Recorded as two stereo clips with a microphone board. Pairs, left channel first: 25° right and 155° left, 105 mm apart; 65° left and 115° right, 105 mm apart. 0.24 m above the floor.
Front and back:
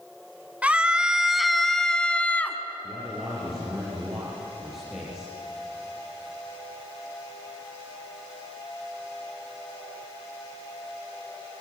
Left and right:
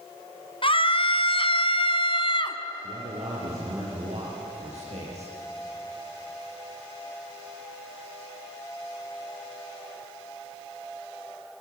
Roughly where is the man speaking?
Behind right.